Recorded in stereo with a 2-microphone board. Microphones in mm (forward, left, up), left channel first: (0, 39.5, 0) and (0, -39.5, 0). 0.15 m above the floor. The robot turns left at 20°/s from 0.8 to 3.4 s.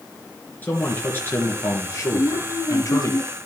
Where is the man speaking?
150° left, 2.5 m; by 3.1 s 105° left, 2.5 m.